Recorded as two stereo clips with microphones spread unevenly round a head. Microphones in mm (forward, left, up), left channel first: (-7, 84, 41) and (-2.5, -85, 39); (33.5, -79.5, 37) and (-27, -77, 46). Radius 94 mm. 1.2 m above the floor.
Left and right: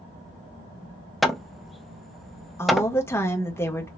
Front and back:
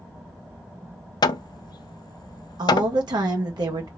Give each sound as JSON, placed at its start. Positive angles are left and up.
{"t": 1.2, "sound": "hammering", "azimuth_deg": 0, "distance_m": 0.5}
{"t": 2.6, "sound": "a woman speaking", "azimuth_deg": 170, "distance_m": 1.5}